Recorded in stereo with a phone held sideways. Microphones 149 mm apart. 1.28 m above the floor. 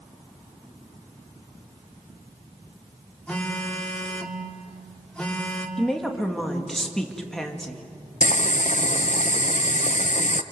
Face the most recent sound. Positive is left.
turn(degrees=65)  # may be behind; listen again after turning